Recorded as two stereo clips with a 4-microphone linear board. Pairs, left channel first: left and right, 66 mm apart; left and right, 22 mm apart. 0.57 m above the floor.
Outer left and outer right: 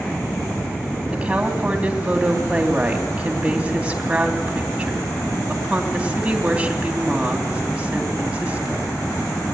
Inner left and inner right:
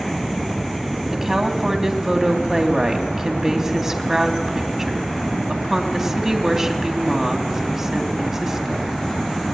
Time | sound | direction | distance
1.1 | a woman speaking | 20° right (ahead or behind) | 3.5 m